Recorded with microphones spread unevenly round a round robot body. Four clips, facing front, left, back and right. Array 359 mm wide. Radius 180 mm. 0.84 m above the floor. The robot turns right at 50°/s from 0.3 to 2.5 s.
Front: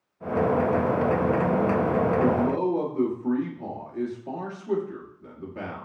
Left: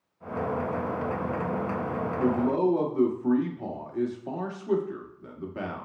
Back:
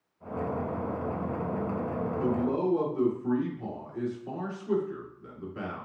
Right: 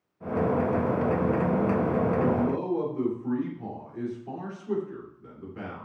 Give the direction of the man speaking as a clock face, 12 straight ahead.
10 o'clock.